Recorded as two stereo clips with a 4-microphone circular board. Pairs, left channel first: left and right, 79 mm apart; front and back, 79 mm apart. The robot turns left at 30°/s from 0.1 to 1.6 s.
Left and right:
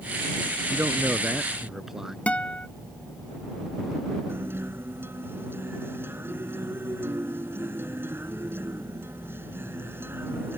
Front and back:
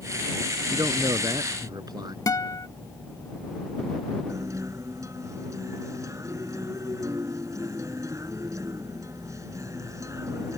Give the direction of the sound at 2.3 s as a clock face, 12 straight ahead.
11 o'clock.